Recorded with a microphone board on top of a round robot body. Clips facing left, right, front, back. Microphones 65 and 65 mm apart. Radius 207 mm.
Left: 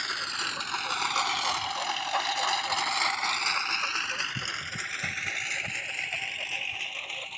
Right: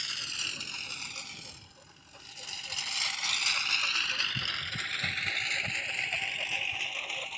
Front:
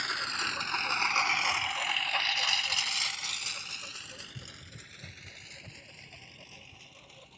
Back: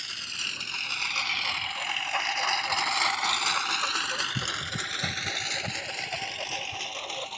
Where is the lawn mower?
50° left; by 7.4 s straight behind.